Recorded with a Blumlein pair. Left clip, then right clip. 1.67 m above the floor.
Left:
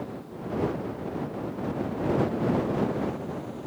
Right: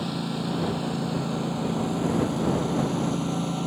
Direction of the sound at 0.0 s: 45° right.